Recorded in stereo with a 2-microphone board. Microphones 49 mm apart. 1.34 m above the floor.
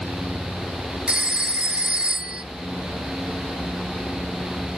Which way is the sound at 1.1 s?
20° right (ahead or behind).